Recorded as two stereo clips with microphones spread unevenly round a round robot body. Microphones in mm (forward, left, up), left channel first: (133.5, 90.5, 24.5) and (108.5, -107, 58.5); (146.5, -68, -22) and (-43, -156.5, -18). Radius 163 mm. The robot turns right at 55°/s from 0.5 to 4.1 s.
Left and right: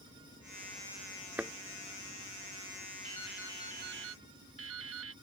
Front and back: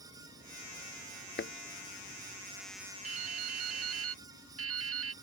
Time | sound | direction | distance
1.4 | a thud | 15° right | ?
3.0 | dripping | 160° left | ?